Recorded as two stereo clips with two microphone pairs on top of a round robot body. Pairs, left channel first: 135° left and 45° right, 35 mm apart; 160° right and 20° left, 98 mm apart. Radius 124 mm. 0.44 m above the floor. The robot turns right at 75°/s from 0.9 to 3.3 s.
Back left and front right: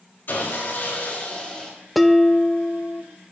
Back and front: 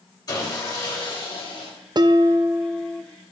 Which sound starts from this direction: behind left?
Sawing, at 0.3 s.